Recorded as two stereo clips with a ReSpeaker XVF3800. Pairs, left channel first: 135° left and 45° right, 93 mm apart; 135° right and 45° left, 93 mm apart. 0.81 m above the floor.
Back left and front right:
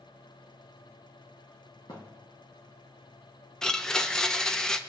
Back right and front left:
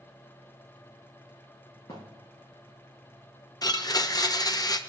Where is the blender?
145° right, 0.5 m.